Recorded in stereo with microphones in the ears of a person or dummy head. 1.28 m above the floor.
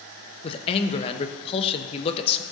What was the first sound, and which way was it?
A man speaking, 30° left (ahead or behind).